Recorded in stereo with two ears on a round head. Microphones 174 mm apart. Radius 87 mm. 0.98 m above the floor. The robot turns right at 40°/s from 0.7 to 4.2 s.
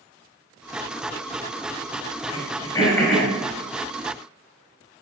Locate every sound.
2.3 s throat clearing: 40° left (ahead or behind), 3.5 m; by 3.3 s centre (ahead or behind), 3.5 m